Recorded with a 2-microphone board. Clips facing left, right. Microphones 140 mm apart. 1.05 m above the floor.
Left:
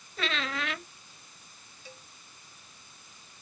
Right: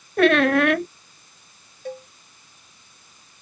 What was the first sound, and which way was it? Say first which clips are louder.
A squeak: right 18 dB; 65° right (ahead or behind).